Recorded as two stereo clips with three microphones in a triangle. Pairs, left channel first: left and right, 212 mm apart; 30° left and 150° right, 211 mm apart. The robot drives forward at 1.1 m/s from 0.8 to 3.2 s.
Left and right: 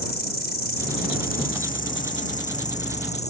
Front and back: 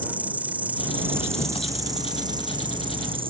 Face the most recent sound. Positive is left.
turn(degrees=145)